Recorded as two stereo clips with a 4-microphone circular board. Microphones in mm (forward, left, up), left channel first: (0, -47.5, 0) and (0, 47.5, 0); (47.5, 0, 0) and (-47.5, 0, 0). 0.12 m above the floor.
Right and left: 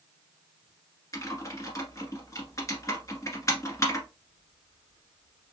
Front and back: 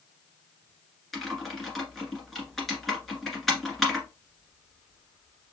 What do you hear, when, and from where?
1.1 s typing on a keyboard: 90° right, 1.6 m